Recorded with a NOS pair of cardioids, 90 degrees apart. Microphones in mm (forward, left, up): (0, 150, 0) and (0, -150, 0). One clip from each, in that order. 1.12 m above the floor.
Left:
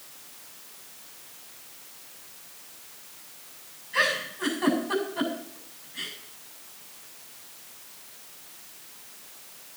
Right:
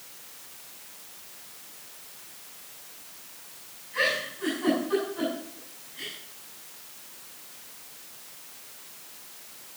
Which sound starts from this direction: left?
A giggle, at 3.9 s.